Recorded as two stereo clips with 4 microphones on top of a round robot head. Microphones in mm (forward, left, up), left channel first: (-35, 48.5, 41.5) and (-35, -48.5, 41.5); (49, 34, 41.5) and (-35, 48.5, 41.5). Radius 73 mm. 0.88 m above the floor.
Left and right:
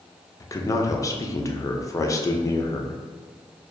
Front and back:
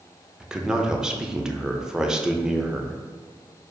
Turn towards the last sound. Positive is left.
turn(degrees=95)